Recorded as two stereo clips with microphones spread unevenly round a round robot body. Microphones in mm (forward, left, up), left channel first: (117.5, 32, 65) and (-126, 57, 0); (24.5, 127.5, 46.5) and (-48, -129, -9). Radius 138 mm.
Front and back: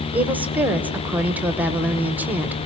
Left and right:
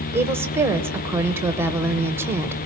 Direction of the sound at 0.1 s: 145° right.